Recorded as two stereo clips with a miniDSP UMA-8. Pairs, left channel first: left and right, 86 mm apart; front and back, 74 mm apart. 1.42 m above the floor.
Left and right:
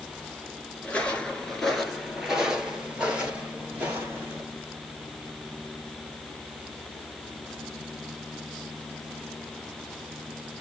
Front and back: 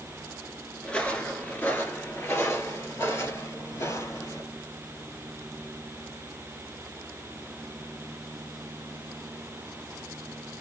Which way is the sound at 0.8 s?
45° left.